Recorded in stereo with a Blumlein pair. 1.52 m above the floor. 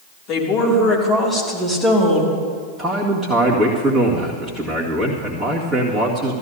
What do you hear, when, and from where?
0.3 s a woman speaking: 40° left, 3 m; by 2.4 s 10° right, 2.5 m
2.8 s a man speaking: 5° right, 2 m